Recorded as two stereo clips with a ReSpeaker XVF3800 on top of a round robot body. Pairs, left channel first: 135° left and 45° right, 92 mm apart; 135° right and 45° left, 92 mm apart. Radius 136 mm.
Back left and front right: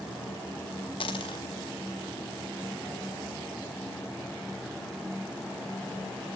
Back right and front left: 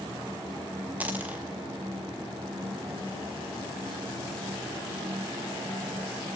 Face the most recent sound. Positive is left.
turn(degrees=115)